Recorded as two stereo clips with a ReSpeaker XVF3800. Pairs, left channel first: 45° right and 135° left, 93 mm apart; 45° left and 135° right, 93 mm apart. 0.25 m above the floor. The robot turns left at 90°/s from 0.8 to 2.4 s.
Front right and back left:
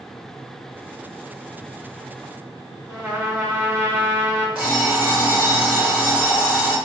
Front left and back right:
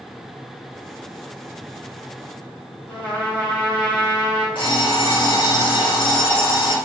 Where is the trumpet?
100° left, 1.5 m.